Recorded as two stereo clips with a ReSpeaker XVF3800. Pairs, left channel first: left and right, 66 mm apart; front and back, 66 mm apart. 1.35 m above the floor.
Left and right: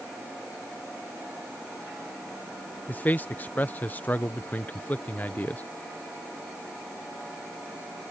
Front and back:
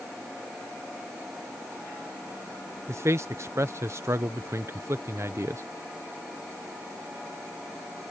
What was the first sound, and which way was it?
A man speaking, 145° left.